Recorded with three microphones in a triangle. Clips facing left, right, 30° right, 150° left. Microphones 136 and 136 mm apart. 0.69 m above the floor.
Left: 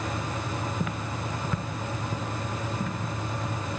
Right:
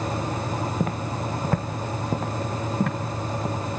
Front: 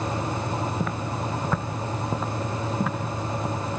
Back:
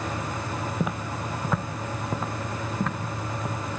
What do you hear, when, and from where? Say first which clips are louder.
0.8 s footsteps: right 5 dB, front 1 dB; 135° right, 1.2 m; by 3.5 s 115° right, 4.5 m